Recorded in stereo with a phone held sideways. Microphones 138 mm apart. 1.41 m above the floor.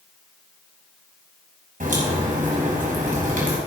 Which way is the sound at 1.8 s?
80° right.